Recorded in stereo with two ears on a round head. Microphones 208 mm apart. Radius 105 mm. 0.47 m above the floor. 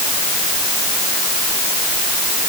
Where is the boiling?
No boiling in this recording.